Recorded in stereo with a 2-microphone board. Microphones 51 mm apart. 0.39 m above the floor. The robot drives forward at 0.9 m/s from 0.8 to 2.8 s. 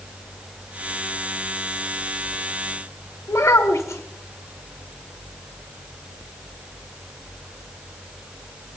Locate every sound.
3.3 s a child speaking: 65° left (ahead or behind), 1.3 m